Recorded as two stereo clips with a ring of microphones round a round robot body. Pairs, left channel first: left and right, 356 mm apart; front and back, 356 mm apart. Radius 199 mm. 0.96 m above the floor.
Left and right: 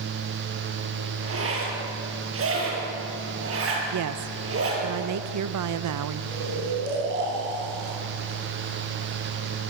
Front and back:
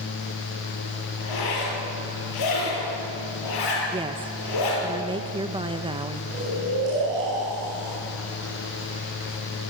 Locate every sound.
1.2 s a zipper: 35° right, 7 m
3.9 s a woman speaking: 105° right, 0.8 m
6.3 s snoring: 115° right, 8 m